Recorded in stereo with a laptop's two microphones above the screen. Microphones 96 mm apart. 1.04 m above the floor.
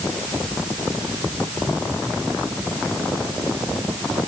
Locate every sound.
Only background noise.